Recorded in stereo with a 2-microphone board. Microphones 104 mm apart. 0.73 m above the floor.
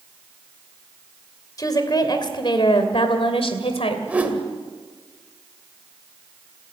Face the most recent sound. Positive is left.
turn(degrees=-15)  # may be behind; listen again after turning